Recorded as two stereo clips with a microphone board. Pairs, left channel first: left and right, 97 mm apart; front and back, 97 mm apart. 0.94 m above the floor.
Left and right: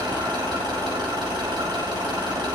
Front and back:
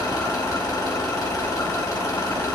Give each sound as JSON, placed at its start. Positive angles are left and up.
{"t": 0.0, "sound": "an engine running", "azimuth_deg": -50, "distance_m": 3.0}